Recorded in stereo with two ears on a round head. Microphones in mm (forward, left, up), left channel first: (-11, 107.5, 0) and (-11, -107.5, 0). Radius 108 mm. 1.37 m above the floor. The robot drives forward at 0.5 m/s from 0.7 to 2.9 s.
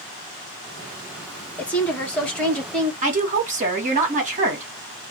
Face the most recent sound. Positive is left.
turn(degrees=-30)  # may be behind; listen again after turning